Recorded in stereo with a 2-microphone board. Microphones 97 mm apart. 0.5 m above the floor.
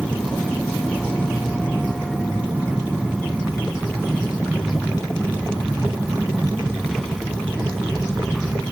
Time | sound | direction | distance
0.0 | an aircraft | centre (ahead or behind) | ?